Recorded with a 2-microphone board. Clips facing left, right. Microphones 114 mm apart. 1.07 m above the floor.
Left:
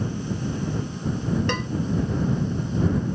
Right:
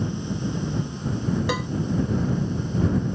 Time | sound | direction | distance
1.5 | a cowbell | 5° right (ahead or behind) | ?